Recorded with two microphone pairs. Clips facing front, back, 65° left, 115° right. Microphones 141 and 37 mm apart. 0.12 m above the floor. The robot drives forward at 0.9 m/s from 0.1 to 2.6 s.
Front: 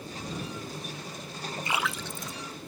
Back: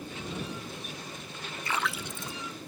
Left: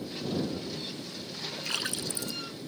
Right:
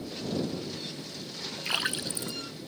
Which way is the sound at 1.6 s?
55° right.